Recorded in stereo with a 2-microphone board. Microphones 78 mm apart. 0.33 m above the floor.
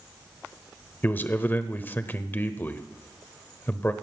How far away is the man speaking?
About 0.9 m.